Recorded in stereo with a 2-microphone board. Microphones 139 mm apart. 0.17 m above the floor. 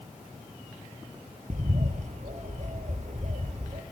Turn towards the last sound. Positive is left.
turn(degrees=-60)  # may be behind; listen again after turning